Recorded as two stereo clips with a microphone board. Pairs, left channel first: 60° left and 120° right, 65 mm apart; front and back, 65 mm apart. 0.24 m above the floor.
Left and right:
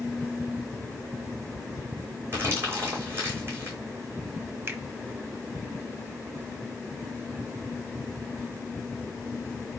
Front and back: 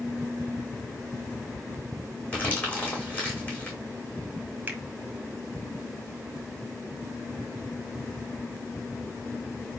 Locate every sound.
2.3 s crumpling: 65° right, 2.5 m
4.7 s a finger snap: 135° right, 0.9 m